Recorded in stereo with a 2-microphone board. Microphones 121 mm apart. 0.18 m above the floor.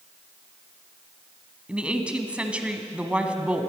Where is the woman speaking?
10° right (ahead or behind), 1.1 m.